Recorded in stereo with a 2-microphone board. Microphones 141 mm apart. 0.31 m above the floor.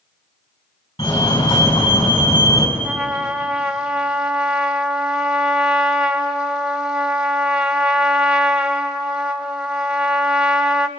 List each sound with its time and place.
1.0 s a fire alarm: 45° left (ahead or behind), 4.5 m
2.8 s a trumpet: 5° right (ahead or behind), 0.8 m